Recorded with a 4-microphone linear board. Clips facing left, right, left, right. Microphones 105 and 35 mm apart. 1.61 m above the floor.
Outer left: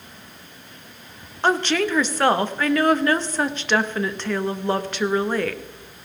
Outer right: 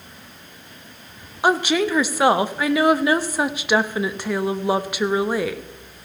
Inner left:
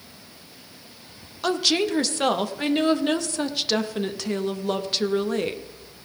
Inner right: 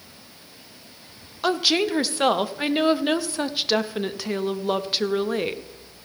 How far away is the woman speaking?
About 0.7 m.